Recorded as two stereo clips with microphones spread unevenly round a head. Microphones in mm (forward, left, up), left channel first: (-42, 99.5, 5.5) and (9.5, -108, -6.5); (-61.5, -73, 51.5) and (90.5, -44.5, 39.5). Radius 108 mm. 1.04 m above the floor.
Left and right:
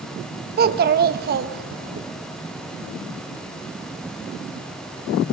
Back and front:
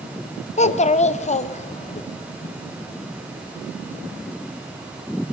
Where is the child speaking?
125° right, 0.9 m.